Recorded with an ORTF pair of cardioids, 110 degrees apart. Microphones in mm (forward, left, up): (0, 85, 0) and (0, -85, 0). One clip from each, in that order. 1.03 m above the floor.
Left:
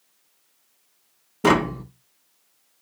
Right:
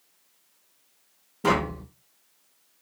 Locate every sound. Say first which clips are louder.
1.4 s tapping: left 5 dB; 35° left, 0.6 m